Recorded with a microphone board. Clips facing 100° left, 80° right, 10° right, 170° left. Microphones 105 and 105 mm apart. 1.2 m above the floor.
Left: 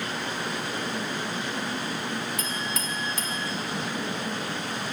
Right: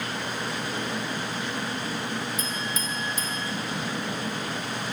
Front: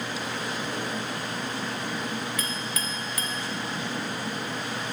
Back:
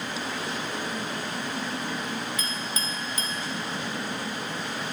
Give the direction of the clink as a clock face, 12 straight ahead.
8 o'clock.